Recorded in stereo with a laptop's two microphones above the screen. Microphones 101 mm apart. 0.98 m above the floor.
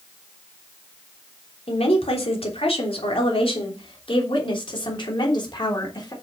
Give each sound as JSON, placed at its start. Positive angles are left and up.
{"t": 1.7, "sound": "a woman speaking", "side_deg": 80, "distance_m": 3.0}